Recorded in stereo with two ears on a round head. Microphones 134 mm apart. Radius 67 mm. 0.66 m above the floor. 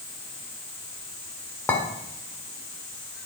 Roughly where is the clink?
Centre.